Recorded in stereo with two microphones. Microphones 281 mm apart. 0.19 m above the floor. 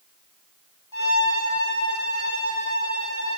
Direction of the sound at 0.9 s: 85° left.